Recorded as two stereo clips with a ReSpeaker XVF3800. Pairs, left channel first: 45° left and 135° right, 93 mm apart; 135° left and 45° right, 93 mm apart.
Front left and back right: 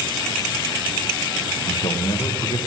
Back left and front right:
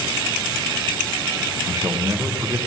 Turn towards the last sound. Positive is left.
turn(degrees=10)